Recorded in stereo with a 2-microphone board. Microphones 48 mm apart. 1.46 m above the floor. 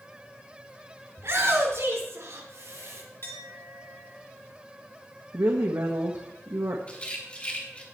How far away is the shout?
About 5.5 m.